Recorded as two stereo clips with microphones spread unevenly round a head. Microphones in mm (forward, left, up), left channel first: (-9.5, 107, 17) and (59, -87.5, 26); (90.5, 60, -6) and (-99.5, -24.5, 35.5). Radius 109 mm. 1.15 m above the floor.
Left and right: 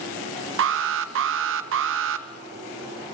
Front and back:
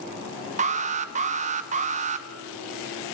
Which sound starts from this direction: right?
An alarm, at 0.6 s.